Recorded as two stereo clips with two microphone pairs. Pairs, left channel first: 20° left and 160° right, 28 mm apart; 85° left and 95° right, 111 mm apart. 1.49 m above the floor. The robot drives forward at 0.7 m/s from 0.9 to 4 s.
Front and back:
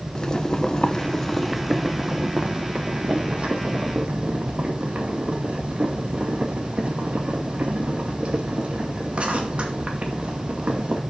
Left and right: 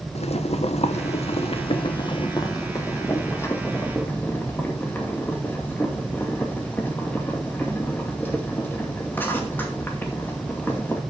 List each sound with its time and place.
0.1 s boiling: 80° left, 0.9 m; by 11.0 s 155° left, 2 m